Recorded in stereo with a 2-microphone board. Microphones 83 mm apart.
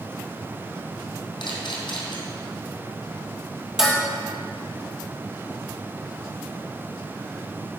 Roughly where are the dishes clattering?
Centre.